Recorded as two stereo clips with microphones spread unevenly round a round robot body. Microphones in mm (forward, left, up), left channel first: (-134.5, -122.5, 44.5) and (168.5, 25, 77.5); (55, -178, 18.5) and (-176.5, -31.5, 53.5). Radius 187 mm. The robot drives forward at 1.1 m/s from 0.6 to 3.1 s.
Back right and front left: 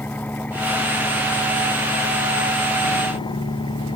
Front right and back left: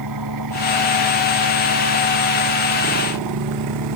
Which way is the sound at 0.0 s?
120° left.